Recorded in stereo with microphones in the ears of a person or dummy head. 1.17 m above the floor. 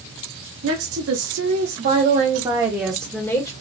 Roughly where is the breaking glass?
No breaking glass in this recording.